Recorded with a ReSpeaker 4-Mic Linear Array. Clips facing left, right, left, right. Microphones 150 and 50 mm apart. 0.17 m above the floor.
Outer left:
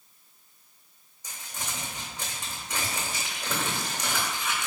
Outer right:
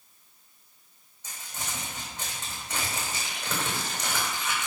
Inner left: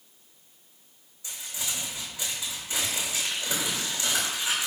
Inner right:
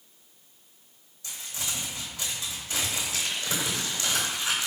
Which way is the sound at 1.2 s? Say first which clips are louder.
Even, even; 10° left (ahead or behind).